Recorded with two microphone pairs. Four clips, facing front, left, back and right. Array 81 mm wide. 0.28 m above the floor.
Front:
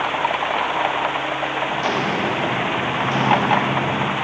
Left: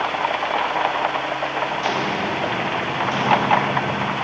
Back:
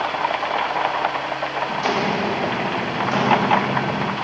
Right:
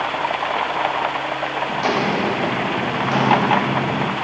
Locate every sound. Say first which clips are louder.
1.7 s footsteps: right 3 dB, back 2 dB; 85° right, 6 m; by 4.2 s 80° right, 7.5 m